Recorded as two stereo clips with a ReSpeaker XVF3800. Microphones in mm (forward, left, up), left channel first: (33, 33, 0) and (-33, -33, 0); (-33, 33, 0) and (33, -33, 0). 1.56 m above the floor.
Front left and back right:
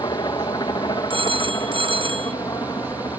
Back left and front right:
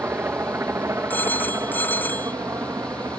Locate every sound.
0.0 s a helicopter: 15° left; by 3.2 s 5° left
1.1 s a phone ringing: 155° right